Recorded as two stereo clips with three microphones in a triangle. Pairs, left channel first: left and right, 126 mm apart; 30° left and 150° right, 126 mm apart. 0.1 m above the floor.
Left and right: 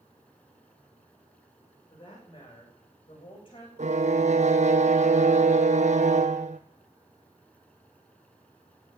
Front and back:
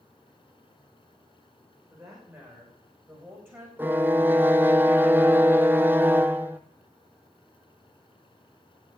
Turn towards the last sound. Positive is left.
turn(degrees=-75)